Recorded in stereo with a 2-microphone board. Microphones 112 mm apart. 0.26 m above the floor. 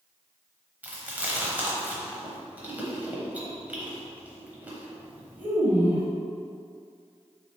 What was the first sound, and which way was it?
Chewing, 15° right (ahead or behind).